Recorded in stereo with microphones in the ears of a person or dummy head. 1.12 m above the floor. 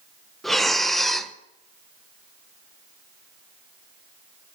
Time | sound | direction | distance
0.4 | breathing | 5° left (ahead or behind) | 0.6 m